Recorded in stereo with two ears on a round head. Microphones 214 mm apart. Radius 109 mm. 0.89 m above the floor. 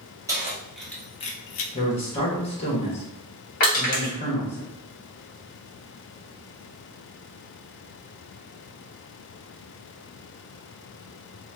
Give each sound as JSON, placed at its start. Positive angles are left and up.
{"t": 0.3, "sound": "keys jangling", "side_deg": -15, "distance_m": 1.0}
{"t": 1.7, "sound": "a man speaking", "side_deg": 25, "distance_m": 1.1}
{"t": 3.6, "sound": "crushing", "side_deg": 40, "distance_m": 1.5}